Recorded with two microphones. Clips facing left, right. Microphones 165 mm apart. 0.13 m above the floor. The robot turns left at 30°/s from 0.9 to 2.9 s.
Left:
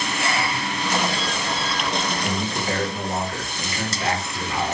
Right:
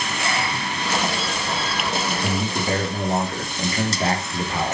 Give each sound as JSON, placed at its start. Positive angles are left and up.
{"t": 2.2, "sound": "a man speaking", "side_deg": -20, "distance_m": 2.5}